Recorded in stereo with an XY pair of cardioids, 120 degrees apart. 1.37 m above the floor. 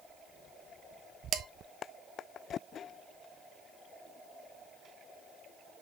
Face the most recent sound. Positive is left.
turn(degrees=-40)